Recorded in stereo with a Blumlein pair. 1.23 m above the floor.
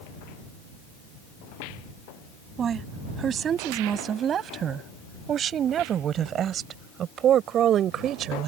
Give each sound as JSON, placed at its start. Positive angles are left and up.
{"t": 2.6, "sound": "a woman speaking", "azimuth_deg": -25}